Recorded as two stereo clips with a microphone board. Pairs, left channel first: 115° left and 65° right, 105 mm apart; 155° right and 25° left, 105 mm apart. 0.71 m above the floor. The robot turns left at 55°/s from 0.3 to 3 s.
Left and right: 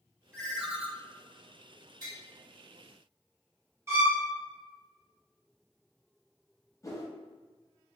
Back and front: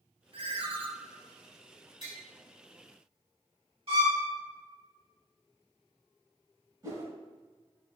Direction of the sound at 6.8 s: 65° left.